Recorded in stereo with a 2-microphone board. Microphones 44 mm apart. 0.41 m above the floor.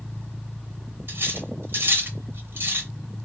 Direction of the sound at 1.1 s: 55° right (ahead or behind).